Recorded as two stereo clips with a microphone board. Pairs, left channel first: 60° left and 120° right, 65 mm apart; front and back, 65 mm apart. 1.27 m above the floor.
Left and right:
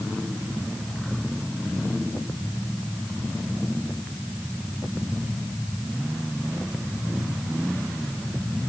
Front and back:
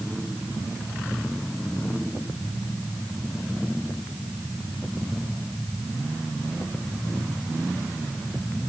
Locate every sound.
Only background noise.